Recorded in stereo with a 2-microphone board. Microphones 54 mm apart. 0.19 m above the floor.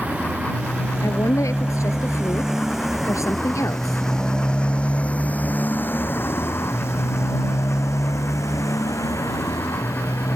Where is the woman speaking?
70° left (ahead or behind).